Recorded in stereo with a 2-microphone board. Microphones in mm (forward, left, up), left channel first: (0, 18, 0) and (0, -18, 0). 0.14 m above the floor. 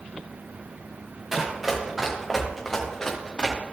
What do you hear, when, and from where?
1.3 s running footsteps: 15° right (ahead or behind), 3.5 m; by 3.6 s 25° left (ahead or behind), 2.5 m